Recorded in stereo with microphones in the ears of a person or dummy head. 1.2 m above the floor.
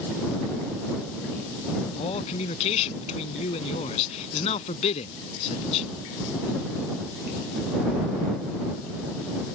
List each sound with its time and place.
2.0 s a man speaking: 35° left (ahead or behind)